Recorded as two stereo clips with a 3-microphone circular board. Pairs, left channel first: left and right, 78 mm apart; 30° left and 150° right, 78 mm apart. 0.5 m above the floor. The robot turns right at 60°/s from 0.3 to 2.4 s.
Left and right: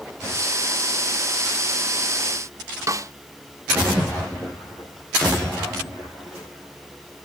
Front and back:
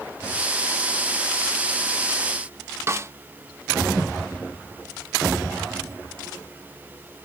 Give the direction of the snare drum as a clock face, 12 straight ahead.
4 o'clock.